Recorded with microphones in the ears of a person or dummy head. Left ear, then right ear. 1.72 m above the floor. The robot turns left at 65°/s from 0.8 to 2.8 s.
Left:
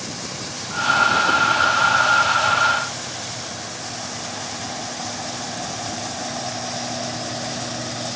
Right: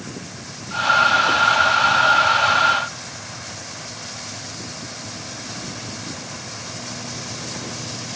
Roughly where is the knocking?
I don't hear knocking.